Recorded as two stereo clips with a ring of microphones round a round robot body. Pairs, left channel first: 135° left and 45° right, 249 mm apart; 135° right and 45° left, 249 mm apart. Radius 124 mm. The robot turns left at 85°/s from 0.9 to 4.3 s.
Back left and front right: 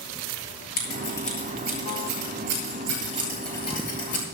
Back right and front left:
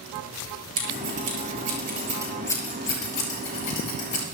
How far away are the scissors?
About 6.5 m.